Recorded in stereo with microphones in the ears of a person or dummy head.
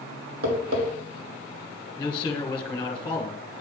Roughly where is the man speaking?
Left.